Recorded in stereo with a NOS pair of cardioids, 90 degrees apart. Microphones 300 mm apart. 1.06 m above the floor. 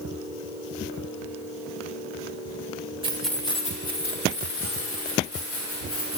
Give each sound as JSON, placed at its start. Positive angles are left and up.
{"t": 3.0, "sound": "keys jangling", "azimuth_deg": -15, "distance_m": 0.9}